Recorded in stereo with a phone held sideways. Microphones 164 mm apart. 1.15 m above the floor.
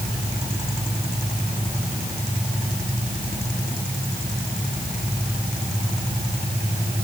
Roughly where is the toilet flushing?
I don't hear a toilet flushing.